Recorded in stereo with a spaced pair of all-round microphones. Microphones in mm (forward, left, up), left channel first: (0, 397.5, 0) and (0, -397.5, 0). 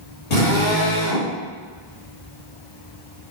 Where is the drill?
75° left (ahead or behind), 1.9 m.